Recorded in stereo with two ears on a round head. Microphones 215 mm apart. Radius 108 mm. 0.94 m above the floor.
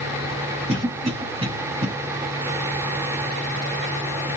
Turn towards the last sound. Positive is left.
turn(degrees=-25)  # may be behind; listen again after turning